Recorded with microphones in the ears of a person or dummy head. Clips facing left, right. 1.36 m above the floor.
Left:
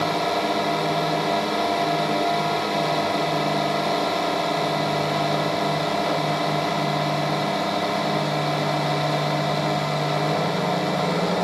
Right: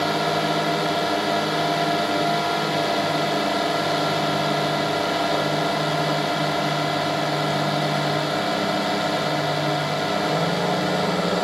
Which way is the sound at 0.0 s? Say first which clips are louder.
Right 1 dB; 5° right (ahead or behind).